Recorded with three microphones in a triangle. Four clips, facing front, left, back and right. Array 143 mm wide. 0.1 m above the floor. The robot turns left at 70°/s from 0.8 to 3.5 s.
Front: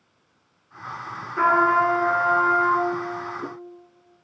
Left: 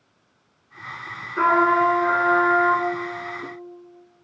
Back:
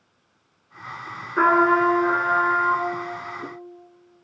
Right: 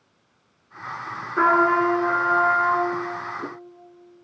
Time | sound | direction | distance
1.4 | a trumpet | 145° right | 1.6 m